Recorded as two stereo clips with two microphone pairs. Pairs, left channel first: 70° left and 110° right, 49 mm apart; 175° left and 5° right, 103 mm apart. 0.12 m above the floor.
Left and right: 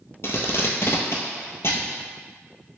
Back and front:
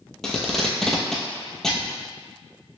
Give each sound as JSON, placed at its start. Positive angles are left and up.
{"t": 0.2, "sound": "tape being pulled", "azimuth_deg": 95, "distance_m": 0.7}